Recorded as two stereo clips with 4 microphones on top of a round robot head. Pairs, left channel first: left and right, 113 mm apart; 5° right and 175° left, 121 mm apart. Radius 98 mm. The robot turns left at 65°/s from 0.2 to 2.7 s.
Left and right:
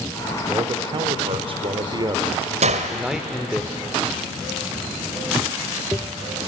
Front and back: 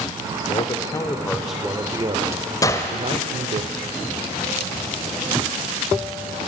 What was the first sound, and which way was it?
A man speaking, 30° right.